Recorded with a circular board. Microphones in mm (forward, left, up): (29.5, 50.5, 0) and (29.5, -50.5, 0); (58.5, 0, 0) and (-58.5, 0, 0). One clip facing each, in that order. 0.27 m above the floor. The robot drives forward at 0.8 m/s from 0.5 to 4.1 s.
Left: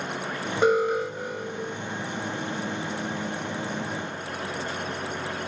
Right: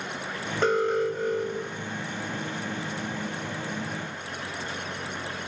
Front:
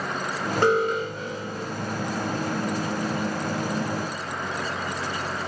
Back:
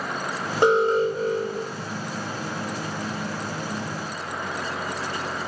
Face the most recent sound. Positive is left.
turn(degrees=175)